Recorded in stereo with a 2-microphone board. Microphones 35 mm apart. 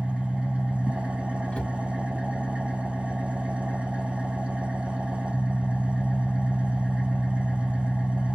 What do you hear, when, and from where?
0.0 s an engine running: 35° right (ahead or behind), 1.7 m
1.5 s a cupboard door: 35° left (ahead or behind), 1.6 m